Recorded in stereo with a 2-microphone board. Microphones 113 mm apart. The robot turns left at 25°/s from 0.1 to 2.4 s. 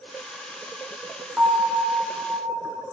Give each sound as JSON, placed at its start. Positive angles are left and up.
{"t": 1.4, "sound": "a bell", "side_deg": -10, "distance_m": 8.0}